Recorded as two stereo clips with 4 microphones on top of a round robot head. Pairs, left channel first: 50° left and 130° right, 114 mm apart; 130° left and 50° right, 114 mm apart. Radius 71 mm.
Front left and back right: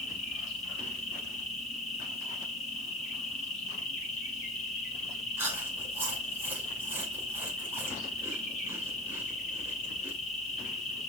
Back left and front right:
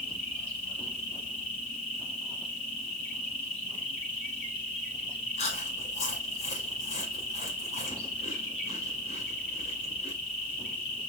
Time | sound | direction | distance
0.0 | an insect | 80° left | 2.5 m
5.4 | chewing | 155° left | 1.4 m